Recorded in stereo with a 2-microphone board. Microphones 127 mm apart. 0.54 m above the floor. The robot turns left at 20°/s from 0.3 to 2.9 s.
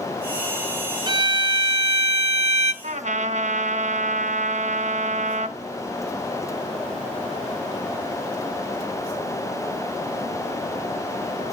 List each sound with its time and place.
1.1 s a violin: 40° right, 1.0 m; by 2.7 s 70° right, 1.0 m
2.8 s a trumpet: 65° right (ahead or behind), 1.5 m; by 5.6 s 70° right (ahead or behind), 1.5 m